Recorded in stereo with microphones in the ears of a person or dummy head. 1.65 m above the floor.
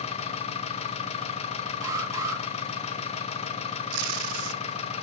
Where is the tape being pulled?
85° right, 0.7 m.